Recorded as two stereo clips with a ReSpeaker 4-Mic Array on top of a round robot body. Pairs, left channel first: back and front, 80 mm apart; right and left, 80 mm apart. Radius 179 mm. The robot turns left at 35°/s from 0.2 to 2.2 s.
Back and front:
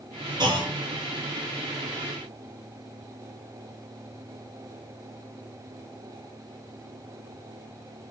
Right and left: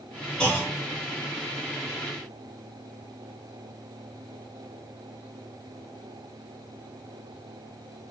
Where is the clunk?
10° right, 1.2 m; by 0.7 s 20° right, 1.2 m.